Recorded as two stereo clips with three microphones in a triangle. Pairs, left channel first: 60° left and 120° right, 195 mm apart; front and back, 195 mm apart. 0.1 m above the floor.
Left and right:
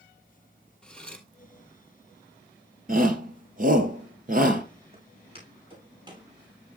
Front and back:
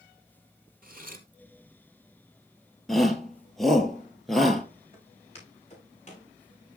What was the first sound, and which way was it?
Cutlery clinking, 145° left.